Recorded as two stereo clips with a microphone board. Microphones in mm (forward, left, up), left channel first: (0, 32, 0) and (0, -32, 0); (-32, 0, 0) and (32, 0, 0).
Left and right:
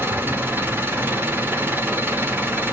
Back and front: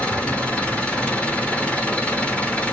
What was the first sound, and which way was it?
An engine running, 120° right.